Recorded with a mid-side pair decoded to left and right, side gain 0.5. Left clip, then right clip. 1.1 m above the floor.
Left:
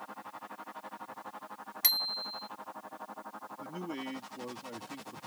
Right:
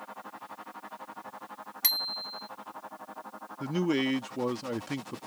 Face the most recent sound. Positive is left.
turn(degrees=-65)